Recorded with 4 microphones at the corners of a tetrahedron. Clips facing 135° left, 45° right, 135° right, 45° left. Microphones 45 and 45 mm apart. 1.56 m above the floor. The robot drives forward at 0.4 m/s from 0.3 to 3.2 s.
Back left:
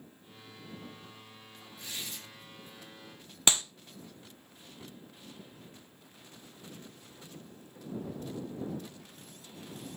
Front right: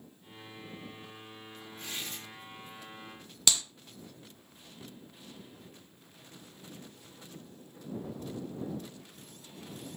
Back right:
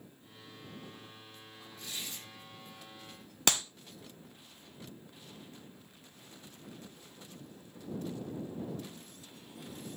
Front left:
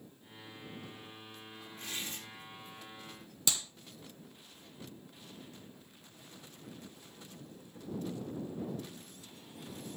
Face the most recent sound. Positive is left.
turn(degrees=-165)